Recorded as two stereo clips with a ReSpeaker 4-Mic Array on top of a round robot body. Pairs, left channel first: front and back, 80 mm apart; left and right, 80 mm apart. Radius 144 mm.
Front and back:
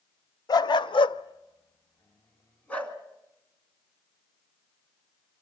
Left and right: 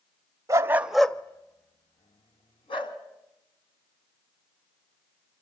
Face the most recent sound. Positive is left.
turn(degrees=75)